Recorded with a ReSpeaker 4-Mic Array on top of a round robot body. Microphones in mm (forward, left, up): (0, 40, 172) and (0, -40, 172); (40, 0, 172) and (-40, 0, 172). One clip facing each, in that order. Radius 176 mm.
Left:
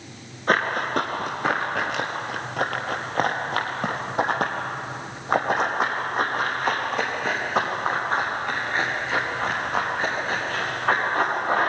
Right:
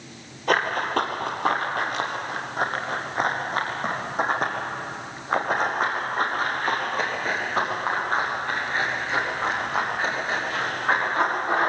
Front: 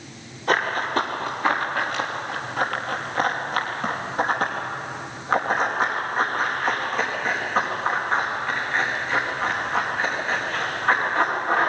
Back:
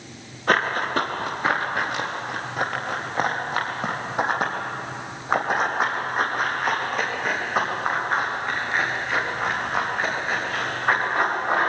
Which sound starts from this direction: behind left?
Running footsteps, at 0.5 s.